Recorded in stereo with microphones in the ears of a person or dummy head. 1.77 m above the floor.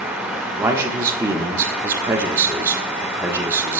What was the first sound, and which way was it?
A man speaking, 15° right (ahead or behind).